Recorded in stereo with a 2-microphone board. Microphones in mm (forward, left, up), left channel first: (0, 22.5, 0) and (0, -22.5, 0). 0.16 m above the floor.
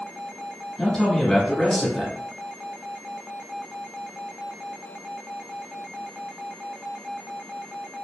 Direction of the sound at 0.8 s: 15° left (ahead or behind).